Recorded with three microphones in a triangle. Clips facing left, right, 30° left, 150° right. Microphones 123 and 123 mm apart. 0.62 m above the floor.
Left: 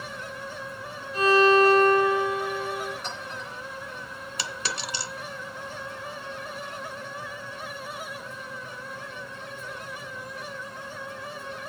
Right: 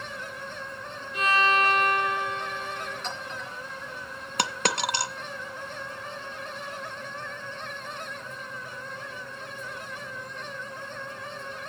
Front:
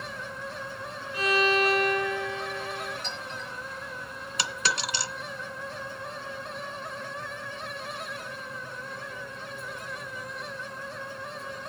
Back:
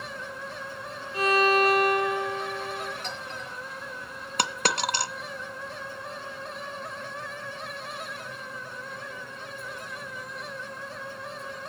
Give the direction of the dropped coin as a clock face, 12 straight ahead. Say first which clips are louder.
Right 8 dB, back 4 dB; 4 o'clock.